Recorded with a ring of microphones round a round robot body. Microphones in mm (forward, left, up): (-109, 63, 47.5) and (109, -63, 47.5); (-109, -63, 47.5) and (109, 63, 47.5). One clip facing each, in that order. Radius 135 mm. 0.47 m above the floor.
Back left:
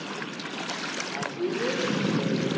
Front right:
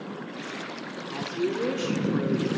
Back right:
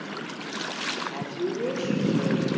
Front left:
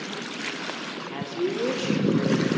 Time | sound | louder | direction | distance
1.1 | a woman speaking | front right 2 dB, front left 3 dB | 10° right | 1.3 m